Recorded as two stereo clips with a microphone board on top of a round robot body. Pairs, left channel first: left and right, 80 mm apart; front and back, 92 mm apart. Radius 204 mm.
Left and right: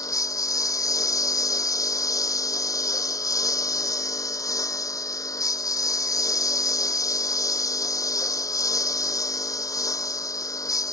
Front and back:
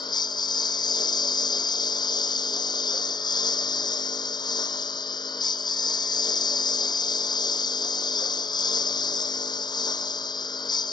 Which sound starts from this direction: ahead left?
A lawn mower, at 0.0 s.